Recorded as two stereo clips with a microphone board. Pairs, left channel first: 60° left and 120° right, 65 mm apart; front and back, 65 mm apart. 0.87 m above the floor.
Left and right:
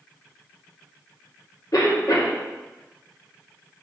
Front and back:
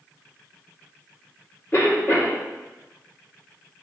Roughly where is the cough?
Ahead left.